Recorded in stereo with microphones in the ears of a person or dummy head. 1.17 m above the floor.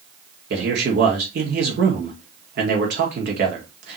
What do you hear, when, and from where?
0.5 s a man speaking: 55° right (ahead or behind), 1.5 m